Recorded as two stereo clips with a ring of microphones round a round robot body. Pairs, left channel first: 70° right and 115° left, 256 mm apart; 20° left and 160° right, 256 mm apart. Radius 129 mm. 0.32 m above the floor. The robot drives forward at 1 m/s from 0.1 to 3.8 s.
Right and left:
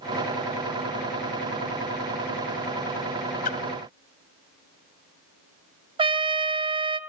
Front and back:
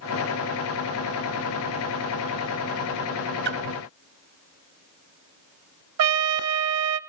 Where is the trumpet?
Straight behind, 1.0 m.